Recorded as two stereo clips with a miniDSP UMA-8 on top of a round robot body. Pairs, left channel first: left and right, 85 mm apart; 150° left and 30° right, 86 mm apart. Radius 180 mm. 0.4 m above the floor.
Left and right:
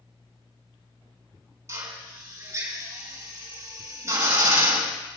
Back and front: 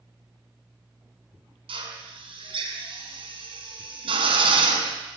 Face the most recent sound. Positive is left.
turn(degrees=-35)